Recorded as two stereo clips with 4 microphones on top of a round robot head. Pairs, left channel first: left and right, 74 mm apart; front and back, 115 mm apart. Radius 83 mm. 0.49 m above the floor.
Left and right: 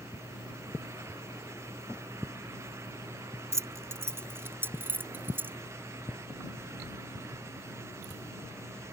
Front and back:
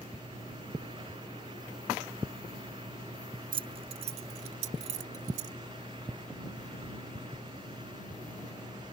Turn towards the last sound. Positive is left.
turn(degrees=-150)